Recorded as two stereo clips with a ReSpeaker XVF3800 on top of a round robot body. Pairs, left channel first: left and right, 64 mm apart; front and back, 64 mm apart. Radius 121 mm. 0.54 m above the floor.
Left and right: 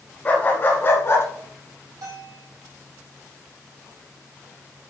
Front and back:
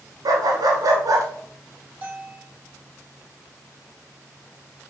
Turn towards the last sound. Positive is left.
turn(degrees=-120)